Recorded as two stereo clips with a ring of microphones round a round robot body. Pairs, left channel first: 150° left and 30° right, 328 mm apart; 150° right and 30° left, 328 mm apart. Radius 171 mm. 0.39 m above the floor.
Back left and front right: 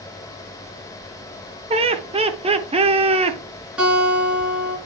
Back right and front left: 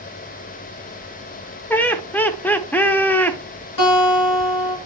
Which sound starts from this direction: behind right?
A guitar, at 3.8 s.